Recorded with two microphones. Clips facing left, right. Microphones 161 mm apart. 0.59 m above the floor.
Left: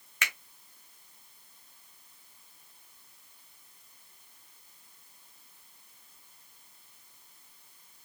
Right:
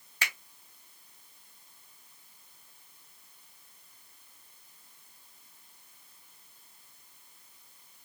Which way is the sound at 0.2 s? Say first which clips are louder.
Even; 35° right (ahead or behind).